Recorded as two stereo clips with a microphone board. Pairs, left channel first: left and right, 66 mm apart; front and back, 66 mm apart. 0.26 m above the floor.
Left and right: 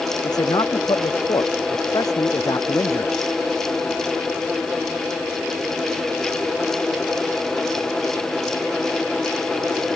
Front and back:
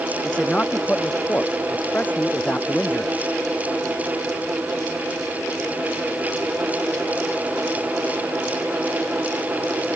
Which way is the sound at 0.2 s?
70° left.